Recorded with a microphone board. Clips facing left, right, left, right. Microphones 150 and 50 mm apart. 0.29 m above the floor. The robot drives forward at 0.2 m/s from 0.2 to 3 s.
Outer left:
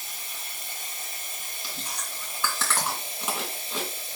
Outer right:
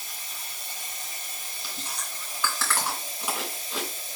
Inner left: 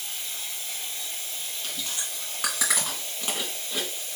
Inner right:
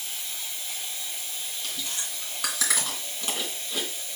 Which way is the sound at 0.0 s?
50° left (ahead or behind).